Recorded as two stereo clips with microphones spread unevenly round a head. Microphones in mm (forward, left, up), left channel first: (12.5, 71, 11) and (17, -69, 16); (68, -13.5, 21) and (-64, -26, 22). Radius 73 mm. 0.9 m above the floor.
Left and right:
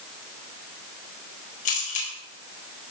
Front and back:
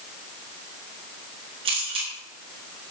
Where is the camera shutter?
130° left, 4 m.